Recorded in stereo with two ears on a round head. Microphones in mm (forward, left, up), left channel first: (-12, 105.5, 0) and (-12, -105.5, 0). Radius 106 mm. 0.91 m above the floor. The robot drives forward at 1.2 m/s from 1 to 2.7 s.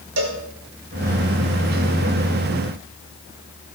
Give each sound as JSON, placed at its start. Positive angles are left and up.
{"t": 0.2, "sound": "a cowbell", "side_deg": -70, "distance_m": 1.5}